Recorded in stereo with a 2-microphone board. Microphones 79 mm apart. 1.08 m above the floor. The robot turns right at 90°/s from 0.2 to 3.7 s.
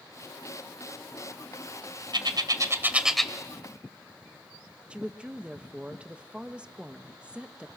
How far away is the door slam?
I don't hear a door slam.